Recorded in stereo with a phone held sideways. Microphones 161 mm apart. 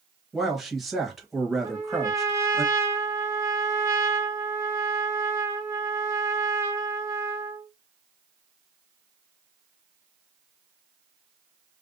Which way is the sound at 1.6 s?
15° right (ahead or behind).